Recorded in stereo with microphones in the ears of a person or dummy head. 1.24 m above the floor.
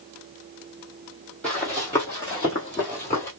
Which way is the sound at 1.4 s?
10° left (ahead or behind).